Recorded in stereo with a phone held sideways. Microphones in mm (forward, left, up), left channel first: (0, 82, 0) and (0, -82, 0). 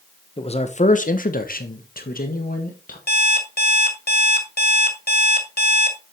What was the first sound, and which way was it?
A man speaking, 35° left (ahead or behind).